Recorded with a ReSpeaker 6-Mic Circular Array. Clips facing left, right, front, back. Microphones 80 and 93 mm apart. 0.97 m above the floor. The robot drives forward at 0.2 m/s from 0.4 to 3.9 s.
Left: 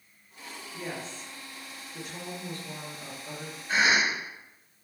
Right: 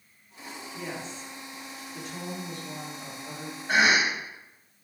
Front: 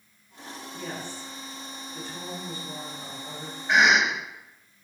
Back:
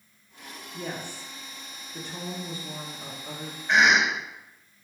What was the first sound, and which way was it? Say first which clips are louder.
A woman speaking: even, back 2 dB; 170° left.